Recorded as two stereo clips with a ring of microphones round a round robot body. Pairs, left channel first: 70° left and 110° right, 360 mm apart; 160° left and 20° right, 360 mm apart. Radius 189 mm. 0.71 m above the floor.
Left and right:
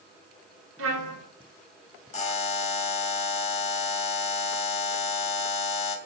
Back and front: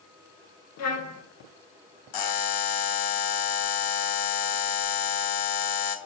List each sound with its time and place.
0.8 s a trumpet: 160° right, 1.7 m
2.1 s a buzzer: 140° left, 0.9 m